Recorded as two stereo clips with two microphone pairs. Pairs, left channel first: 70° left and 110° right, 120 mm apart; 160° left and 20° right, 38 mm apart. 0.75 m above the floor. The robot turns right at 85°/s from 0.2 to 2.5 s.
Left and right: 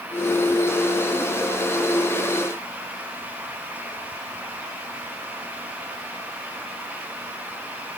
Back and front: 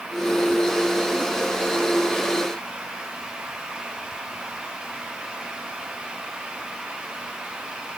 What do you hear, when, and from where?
Only background noise.